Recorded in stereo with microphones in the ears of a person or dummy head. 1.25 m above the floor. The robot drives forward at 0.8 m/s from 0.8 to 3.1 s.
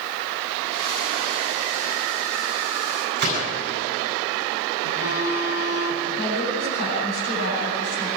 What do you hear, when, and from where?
3.2 s a gunshot: 55° right (ahead or behind), 9.5 m
4.8 s a phone buzzing: 85° left, 5.5 m
6.2 s a woman speaking: 65° left (ahead or behind), 9.5 m